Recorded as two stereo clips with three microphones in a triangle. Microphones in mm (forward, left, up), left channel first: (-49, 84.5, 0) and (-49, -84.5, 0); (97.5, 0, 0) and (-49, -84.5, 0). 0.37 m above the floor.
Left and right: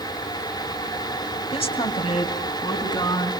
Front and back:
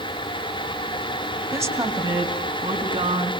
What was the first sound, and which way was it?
A woman speaking, 140° left.